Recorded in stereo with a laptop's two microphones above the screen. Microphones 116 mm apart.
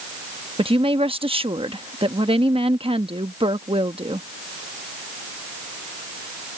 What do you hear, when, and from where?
0.6 s a woman speaking: 55° right (ahead or behind)